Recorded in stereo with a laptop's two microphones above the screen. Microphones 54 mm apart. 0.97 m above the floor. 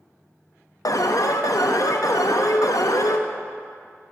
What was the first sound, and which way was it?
An alarm, 85° left.